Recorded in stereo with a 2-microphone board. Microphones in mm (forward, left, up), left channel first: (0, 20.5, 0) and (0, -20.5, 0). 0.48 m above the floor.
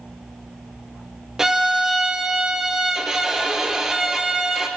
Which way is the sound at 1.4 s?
10° right (ahead or behind).